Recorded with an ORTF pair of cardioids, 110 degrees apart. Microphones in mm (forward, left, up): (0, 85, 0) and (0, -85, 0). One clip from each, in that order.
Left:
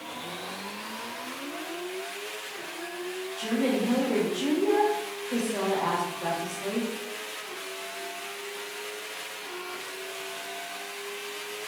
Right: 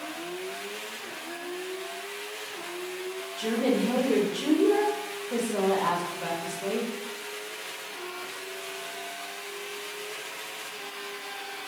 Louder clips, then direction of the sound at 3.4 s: Right 1 dB; 20° right.